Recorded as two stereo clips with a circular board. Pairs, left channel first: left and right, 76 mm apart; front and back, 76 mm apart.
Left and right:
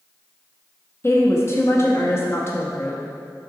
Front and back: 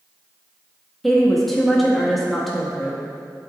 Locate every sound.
1.0 s a woman speaking: 85° left, 0.7 m